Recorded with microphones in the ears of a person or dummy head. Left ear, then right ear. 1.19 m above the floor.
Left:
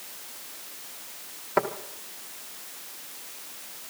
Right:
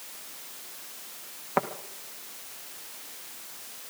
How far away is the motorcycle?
No motorcycle in this recording.